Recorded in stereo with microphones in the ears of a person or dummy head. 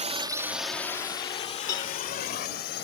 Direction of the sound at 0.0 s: 35° right (ahead or behind).